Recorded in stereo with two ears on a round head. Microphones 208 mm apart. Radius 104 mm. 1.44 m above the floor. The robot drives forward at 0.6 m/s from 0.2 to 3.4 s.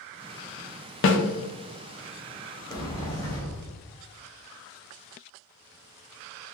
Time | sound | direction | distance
1.0 | a snare drum | 55° left (ahead or behind) | 0.7 m
2.7 | a sliding door | 15° left (ahead or behind) | 1.0 m